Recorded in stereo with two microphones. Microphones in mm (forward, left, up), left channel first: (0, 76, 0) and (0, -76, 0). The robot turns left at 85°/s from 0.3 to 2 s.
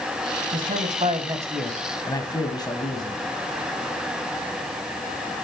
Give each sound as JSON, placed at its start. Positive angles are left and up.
{"t": 0.5, "sound": "a man speaking", "azimuth_deg": -85, "distance_m": 2.5}